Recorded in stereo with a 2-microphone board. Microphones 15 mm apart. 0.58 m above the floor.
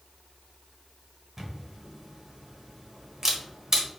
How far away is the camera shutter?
About 1.1 m.